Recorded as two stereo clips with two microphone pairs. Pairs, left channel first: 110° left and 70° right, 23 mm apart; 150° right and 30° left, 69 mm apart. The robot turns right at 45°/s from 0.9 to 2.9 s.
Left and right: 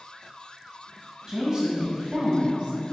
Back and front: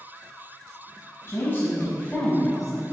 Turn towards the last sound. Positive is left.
turn(degrees=-45)